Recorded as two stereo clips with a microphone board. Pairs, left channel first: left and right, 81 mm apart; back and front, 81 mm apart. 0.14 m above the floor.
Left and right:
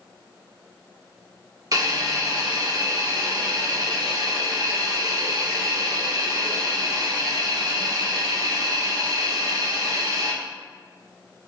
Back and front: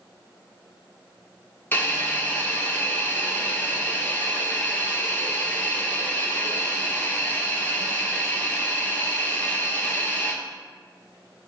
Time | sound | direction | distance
1.7 | a hiss | 120° right | 0.7 m